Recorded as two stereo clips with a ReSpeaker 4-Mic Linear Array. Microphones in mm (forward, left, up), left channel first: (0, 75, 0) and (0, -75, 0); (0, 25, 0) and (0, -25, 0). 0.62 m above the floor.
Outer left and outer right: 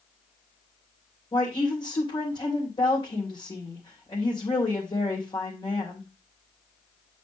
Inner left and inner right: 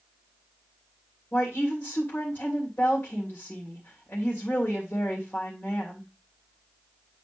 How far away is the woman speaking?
About 2.5 m.